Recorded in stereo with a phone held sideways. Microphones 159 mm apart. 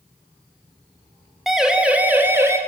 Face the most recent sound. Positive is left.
turn(degrees=-15)  # may be behind; listen again after turning